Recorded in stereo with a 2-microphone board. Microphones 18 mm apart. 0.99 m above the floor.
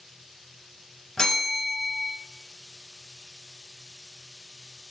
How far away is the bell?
About 1.1 m.